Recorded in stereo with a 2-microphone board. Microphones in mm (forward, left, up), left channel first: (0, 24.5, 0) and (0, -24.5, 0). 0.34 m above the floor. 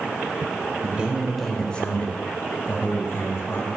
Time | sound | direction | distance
0.8 | a man speaking | 30° right (ahead or behind) | 1.1 m